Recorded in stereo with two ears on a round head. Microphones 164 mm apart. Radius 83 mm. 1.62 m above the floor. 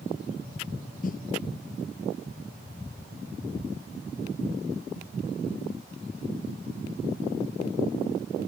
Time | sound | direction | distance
1.0 | a snare drum | 45° left (ahead or behind) | ?